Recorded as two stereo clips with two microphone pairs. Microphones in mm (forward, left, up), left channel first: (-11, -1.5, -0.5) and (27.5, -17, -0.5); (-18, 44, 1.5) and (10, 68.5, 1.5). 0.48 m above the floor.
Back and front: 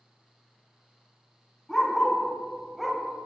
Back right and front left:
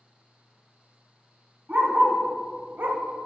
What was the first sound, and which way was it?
A dog barking, 75° left.